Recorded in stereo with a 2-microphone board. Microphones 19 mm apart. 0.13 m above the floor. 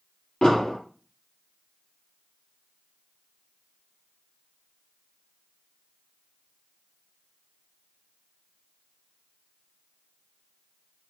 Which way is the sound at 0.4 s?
55° left (ahead or behind).